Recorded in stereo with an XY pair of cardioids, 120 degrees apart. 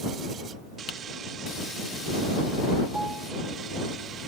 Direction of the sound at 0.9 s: 50° left.